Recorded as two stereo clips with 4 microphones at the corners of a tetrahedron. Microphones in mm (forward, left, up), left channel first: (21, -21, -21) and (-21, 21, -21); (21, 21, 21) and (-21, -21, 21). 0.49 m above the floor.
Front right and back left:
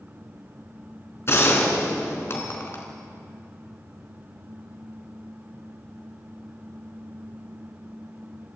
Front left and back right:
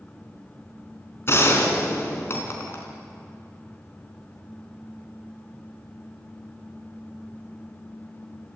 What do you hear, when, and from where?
1.3 s a gunshot: straight ahead, 3.5 m